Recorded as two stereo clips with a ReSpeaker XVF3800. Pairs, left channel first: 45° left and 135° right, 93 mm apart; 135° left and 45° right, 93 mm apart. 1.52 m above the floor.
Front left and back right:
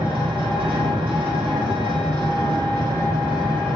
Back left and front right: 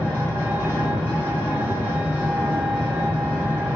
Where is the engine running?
150° right, 1.2 m.